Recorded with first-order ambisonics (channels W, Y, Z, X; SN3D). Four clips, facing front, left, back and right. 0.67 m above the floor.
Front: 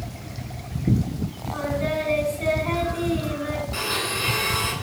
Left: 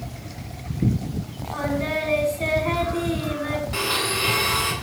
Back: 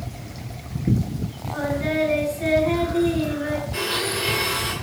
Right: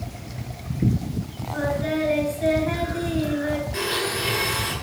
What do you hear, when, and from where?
1.5 s singing: 80° left, 5.5 m
3.7 s a blender: 80° left, 8 m